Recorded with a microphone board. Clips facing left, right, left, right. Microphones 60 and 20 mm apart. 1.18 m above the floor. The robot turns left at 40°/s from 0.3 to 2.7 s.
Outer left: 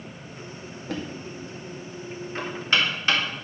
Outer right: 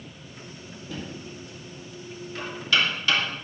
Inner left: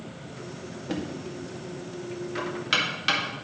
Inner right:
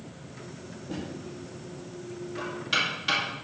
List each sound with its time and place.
0.9 s knocking: 70° left (ahead or behind), 1.9 m; by 3.2 s 40° left (ahead or behind), 1.9 m